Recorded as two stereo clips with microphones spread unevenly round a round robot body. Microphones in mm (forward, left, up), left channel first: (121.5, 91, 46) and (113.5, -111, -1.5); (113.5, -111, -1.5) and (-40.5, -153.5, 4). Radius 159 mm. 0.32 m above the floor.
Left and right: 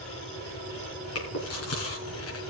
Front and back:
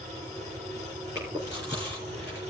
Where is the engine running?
125° left, 5.5 m.